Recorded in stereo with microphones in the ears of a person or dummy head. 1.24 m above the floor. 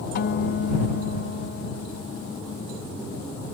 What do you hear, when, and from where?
0.1 s a guitar: 65° left (ahead or behind)